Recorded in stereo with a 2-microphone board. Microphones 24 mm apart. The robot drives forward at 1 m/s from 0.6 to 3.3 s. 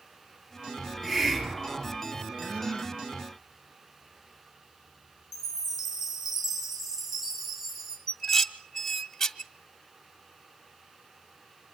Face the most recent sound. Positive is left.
turn(degrees=10)  # may be behind; listen again after turning